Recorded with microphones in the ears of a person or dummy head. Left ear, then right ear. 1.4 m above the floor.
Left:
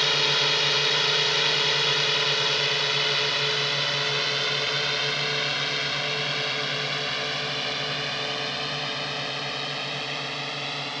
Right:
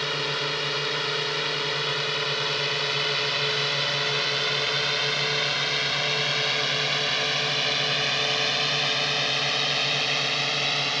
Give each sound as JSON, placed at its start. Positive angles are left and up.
{"t": 0.0, "sound": "a drone", "side_deg": 20}